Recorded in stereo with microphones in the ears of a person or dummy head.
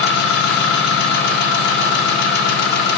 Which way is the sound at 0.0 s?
65° left (ahead or behind).